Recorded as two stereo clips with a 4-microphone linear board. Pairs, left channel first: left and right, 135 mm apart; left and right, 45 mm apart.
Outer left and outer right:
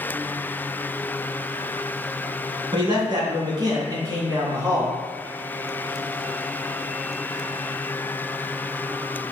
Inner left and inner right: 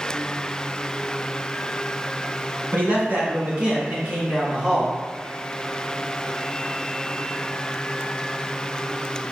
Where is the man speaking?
40° right (ahead or behind), 2.5 m; by 5.0 s 25° right (ahead or behind), 3.5 m.